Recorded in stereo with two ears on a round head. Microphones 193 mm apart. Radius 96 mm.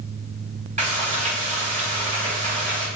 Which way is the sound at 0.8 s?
35° right (ahead or behind).